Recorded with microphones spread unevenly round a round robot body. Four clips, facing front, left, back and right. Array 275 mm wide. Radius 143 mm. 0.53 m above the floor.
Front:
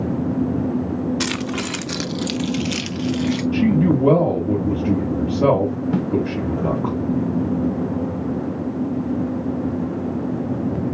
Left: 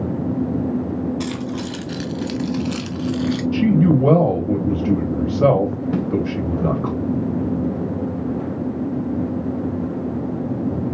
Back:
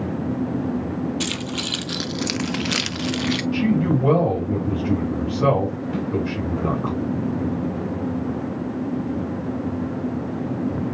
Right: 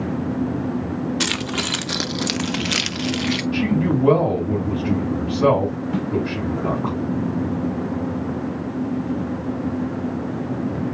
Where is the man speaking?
55° left, 3 m.